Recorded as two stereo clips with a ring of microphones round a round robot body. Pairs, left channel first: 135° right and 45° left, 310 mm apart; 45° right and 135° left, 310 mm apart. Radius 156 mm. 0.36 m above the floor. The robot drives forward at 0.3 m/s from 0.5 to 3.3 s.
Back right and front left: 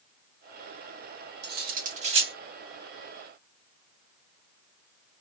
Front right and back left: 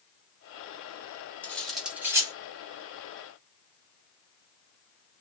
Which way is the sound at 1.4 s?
35° left.